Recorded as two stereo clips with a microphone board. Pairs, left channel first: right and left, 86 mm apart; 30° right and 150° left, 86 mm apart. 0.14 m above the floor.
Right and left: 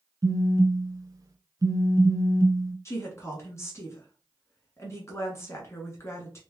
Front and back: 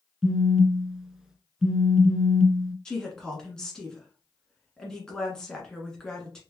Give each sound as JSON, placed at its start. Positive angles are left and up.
{"t": 0.2, "sound": "a phone buzzing", "azimuth_deg": 70, "distance_m": 0.6}
{"t": 2.9, "sound": "a woman speaking", "azimuth_deg": -105, "distance_m": 1.5}